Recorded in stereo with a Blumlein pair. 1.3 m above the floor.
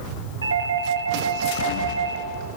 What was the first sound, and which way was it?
A doorbell, 70° right.